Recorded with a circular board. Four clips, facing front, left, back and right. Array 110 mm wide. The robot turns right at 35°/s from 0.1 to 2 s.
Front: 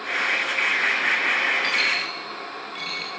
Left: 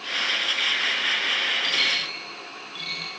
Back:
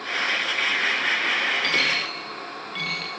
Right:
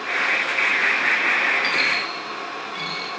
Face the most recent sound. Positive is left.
turn(degrees=-160)